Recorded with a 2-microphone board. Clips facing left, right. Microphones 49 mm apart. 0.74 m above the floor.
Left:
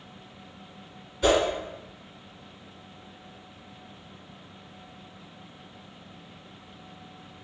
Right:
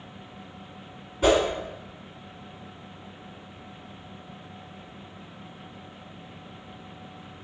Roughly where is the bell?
I don't hear a bell.